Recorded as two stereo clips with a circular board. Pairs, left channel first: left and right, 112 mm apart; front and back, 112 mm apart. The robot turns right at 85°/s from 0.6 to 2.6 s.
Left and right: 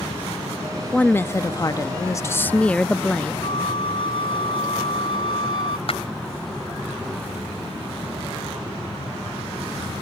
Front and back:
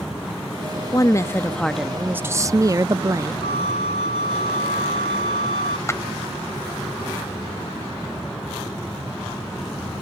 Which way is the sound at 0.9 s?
15° left.